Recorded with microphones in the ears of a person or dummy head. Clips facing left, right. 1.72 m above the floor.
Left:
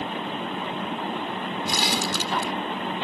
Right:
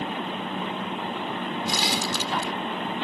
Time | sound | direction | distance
1.7 | crumpling | 65° left (ahead or behind) | ?